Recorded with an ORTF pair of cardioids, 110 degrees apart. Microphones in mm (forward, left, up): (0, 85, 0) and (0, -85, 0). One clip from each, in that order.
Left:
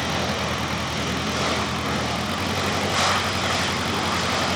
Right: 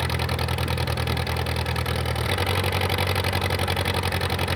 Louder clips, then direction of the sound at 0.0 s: Left 3 dB; 45° right.